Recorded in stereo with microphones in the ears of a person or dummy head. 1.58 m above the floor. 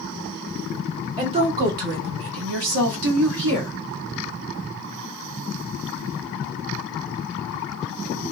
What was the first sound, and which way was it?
A woman speaking, 20° right (ahead or behind).